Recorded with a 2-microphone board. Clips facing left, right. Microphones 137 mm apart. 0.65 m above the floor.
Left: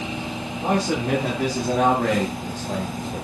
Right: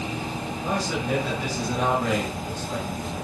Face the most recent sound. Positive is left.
turn(degrees=70)  # may be behind; listen again after turning